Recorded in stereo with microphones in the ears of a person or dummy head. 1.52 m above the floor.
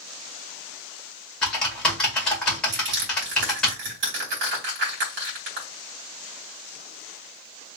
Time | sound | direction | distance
1.4 | typing on a keyboard | 5° left (ahead or behind) | 1.9 m
2.7 | crushing | 55° right (ahead or behind) | 2 m